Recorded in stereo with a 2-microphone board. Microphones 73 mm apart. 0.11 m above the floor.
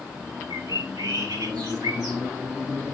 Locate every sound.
0.5 s a bird: 65° right (ahead or behind), 3.5 m